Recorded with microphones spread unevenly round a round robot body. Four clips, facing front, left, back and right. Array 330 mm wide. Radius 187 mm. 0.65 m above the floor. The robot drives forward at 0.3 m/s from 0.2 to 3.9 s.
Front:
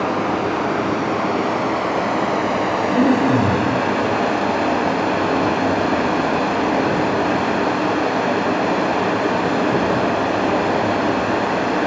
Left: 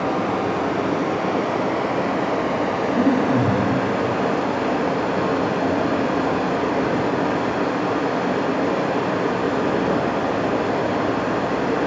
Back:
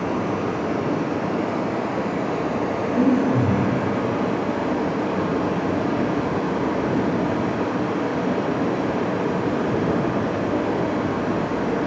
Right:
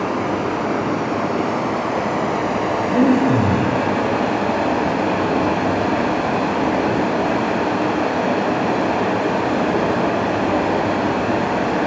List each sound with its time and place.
0.0 s running water: 25° right, 3 m; by 11.9 s 40° right, 1.8 m
2.9 s breathing: 40° right, 1.2 m; by 3.6 s 45° right, 1.1 m